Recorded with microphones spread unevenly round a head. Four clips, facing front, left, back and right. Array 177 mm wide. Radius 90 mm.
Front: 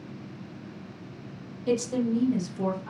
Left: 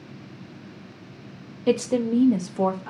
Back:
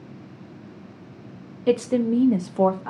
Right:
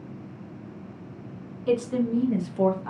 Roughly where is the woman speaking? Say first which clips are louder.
Left 2 dB, back 5 dB; behind left.